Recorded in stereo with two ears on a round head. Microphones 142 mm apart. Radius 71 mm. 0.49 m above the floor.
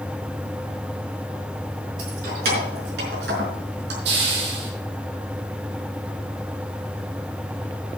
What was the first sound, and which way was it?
Keys jangling, 60° right (ahead or behind).